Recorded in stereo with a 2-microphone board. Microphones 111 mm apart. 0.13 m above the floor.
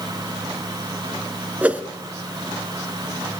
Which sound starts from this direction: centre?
A whoosh, at 1.6 s.